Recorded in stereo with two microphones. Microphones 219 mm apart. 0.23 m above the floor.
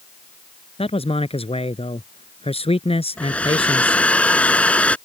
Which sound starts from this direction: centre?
A hair dryer, at 3.2 s.